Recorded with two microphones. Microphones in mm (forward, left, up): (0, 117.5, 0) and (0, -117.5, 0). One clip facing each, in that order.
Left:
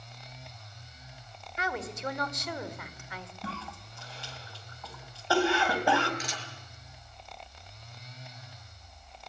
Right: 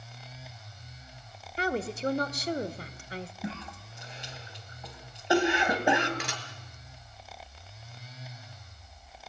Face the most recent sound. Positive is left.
turn(degrees=-70)  # may be behind; listen again after turning